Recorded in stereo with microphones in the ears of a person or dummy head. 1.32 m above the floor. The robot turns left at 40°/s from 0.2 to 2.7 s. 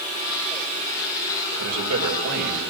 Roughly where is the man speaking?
Right.